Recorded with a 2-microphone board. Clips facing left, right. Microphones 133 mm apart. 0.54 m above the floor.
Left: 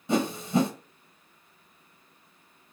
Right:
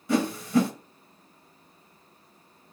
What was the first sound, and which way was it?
A whoosh, 25° left (ahead or behind).